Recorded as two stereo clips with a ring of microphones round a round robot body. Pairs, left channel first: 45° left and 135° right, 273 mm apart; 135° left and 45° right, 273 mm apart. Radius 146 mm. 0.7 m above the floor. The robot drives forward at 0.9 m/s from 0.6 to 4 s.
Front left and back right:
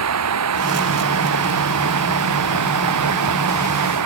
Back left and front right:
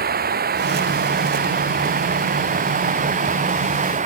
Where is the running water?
105° right; by 4.1 s 110° right.